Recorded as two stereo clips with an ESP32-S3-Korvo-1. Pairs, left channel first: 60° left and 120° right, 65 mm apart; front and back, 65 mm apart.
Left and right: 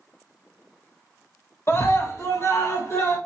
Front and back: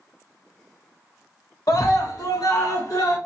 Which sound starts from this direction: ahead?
A scream, at 1.7 s.